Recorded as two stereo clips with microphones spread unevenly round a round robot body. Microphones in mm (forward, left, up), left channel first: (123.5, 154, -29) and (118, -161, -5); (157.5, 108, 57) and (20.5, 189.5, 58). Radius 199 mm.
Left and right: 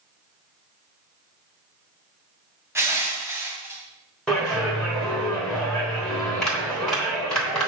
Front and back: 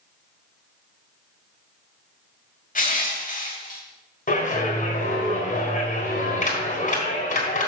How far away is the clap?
About 4 m.